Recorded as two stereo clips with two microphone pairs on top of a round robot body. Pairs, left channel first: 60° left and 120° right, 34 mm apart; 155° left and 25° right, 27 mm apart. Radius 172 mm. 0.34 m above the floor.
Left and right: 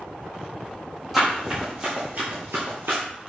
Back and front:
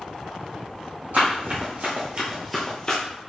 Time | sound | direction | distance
1.1 | running footsteps | 30° right | 1.4 m